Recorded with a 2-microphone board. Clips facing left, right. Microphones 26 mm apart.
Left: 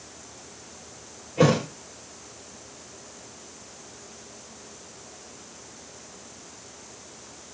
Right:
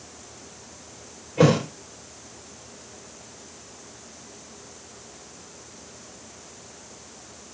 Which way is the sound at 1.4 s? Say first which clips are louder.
Right 2 dB; 10° right (ahead or behind).